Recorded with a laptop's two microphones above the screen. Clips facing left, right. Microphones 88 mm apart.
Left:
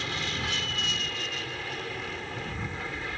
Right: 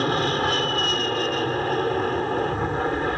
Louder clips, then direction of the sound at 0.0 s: Right 12 dB; 50° right (ahead or behind).